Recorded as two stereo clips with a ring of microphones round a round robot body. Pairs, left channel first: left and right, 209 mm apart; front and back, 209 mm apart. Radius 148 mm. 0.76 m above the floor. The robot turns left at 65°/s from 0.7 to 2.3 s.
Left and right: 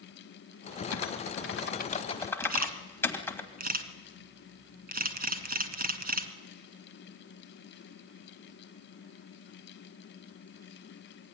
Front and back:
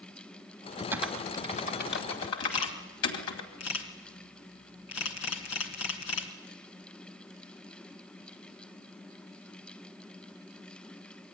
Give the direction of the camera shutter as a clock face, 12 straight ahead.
1 o'clock.